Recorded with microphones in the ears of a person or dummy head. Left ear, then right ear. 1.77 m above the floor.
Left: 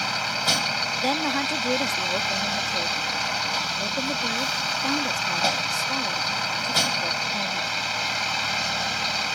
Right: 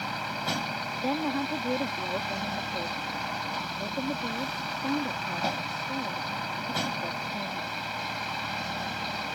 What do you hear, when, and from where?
0.0 s a vehicle: 45° left (ahead or behind)
1.0 s a woman speaking: 70° left (ahead or behind)